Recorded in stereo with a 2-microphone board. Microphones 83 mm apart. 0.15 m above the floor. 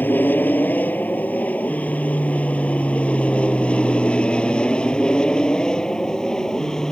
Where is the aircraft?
20° left (ahead or behind); by 6.9 s 5° left (ahead or behind).